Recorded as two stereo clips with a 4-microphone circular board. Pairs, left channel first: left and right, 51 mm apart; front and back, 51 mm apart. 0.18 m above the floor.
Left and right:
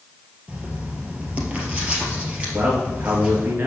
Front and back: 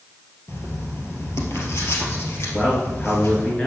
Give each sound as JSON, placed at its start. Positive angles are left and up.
{"t": 0.5, "sound": "writing", "azimuth_deg": -25, "distance_m": 2.0}
{"t": 2.5, "sound": "a man speaking", "azimuth_deg": -70, "distance_m": 2.5}